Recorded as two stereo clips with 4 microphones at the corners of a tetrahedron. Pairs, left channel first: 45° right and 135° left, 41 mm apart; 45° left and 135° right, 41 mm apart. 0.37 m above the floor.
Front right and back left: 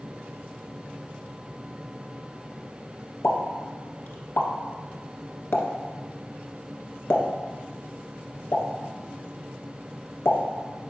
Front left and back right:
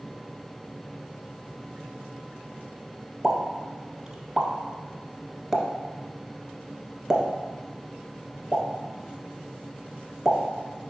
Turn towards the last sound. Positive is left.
turn(degrees=-60)